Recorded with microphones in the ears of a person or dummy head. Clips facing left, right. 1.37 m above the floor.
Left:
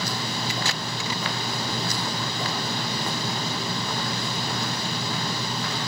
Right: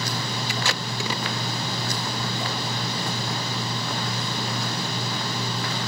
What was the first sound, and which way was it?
Tape being pulled, 60° right (ahead or behind).